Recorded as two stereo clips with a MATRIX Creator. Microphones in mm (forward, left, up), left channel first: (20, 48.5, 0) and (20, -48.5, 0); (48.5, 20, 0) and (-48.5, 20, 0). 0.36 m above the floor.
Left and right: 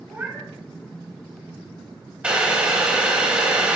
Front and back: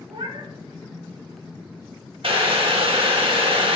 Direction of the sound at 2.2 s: 170° right.